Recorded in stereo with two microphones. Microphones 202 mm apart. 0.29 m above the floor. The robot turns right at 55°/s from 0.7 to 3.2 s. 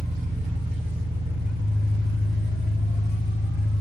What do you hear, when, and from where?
0.0 s an engine running: 150° right, 2 m; by 3.8 s 15° right, 2 m